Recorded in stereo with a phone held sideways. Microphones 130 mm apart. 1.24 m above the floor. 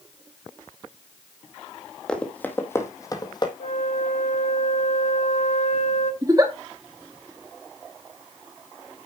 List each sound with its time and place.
2.1 s running footsteps: 5° left (ahead or behind), 1.8 m; by 3.5 s 35° left (ahead or behind), 1.9 m
3.6 s a flute: 65° left (ahead or behind), 1.7 m
6.2 s a giggle: 25° right (ahead or behind), 1.9 m